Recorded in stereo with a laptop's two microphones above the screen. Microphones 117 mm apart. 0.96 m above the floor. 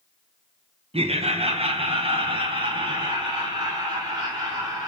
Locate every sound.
0.9 s laughter: 55° right (ahead or behind), 0.8 m; by 4.9 s 35° right (ahead or behind), 2.5 m